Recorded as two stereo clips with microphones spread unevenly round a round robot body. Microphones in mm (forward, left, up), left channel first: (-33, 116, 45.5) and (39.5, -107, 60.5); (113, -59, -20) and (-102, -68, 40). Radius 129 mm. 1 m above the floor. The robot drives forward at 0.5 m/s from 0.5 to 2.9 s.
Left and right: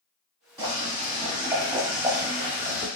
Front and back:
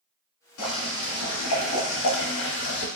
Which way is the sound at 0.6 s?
Straight ahead.